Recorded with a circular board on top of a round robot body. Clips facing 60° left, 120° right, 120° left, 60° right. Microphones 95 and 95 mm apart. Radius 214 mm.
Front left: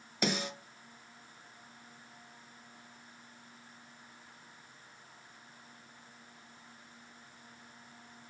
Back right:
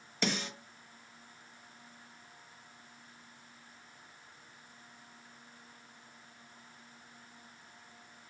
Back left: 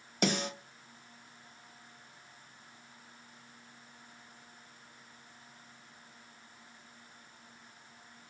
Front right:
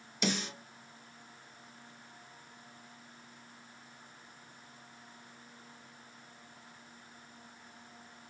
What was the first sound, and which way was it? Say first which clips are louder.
A snare drum: front left 1 dB, back left 3 dB; 135° left.